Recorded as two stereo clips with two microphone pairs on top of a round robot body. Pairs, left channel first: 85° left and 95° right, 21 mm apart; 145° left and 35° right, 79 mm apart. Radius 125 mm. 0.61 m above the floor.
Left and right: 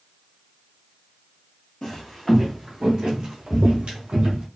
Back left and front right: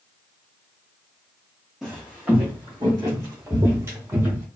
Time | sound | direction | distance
1.8 | footsteps | 45° left | 0.9 m